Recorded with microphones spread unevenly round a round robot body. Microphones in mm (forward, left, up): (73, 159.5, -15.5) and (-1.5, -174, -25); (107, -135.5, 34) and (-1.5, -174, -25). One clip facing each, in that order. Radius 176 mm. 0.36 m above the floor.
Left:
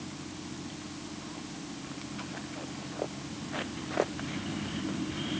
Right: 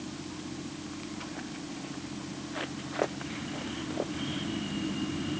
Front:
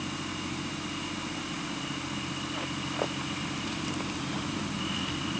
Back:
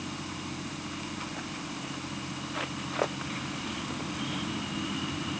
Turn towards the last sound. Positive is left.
No sound to turn to.